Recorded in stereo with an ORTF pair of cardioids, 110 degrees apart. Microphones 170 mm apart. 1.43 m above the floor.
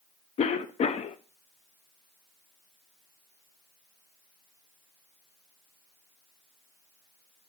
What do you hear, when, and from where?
0.4 s a cough: 40° left, 0.7 m